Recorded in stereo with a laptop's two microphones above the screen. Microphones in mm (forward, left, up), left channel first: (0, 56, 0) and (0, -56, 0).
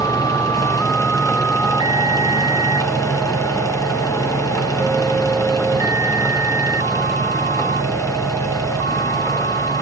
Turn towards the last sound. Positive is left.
turn(degrees=30)  # may be behind; listen again after turning